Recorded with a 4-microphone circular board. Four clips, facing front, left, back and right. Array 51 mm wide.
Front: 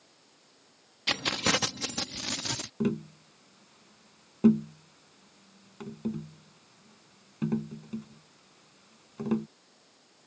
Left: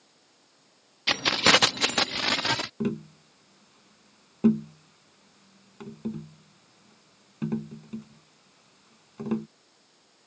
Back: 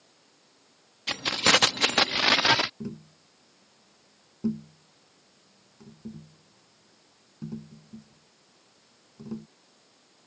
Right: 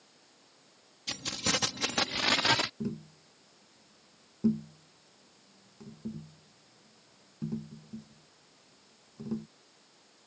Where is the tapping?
50° left.